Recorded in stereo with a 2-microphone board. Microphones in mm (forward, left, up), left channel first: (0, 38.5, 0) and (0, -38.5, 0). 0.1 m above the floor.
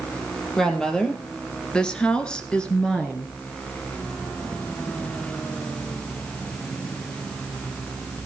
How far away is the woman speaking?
About 3 m.